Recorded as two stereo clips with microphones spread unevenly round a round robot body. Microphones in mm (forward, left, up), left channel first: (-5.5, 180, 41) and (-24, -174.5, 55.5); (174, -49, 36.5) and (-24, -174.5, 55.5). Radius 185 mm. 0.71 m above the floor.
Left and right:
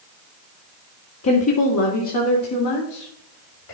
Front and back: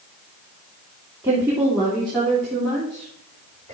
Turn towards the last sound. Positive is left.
turn(degrees=115)